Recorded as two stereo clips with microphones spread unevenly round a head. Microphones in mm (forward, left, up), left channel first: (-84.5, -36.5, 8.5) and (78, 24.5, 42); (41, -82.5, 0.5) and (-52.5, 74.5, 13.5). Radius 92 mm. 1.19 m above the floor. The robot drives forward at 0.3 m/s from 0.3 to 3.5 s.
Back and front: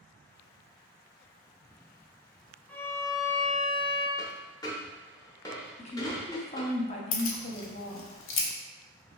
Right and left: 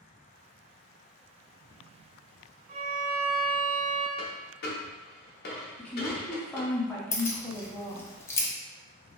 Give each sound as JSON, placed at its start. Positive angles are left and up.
{"t": 2.7, "sound": "a violin", "azimuth_deg": 145, "distance_m": 0.5}
{"t": 4.2, "sound": "a dropped coin", "azimuth_deg": -85, "distance_m": 0.7}
{"t": 5.8, "sound": "a woman speaking", "azimuth_deg": -135, "distance_m": 0.7}
{"t": 7.1, "sound": "keys jangling", "azimuth_deg": -135, "distance_m": 0.5}